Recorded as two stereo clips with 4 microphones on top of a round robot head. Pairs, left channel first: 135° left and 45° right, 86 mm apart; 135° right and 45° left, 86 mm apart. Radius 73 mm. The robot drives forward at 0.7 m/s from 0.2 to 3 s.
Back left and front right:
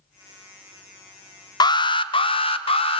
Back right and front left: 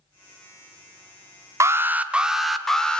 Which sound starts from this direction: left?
An alarm, at 1.6 s.